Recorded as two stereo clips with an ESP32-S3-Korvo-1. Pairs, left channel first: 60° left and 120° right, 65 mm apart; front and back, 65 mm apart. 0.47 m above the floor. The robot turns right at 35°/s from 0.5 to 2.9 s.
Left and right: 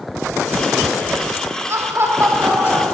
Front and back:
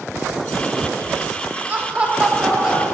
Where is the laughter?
135° right, 1.1 m; by 2.9 s 95° right, 1.1 m.